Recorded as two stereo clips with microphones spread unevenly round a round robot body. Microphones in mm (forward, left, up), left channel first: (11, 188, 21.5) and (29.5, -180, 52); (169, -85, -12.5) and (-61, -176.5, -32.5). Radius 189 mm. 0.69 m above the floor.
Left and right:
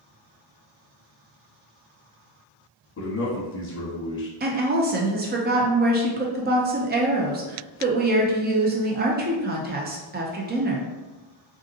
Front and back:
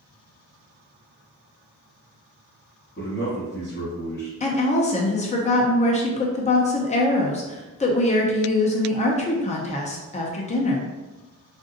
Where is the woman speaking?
30° right, 0.6 m.